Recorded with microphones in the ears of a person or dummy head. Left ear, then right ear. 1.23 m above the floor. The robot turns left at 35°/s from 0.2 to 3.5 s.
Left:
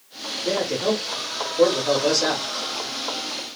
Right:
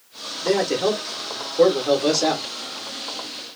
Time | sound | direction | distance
0.4 | a man speaking | 110° right | 1.0 m